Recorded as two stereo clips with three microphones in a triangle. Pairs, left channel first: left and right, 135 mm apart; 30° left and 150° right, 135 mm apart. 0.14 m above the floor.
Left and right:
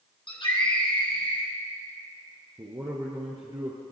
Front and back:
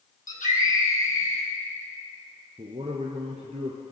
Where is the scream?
40° left, 4 m.